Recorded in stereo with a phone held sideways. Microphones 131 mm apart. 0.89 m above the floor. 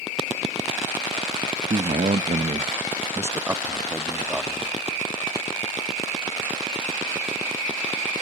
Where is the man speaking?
55° right (ahead or behind), 0.6 m; by 4.7 s centre (ahead or behind), 1.5 m.